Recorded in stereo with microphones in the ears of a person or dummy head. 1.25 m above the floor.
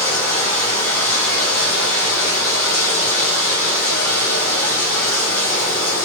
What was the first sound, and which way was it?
Running water, 10° left (ahead or behind).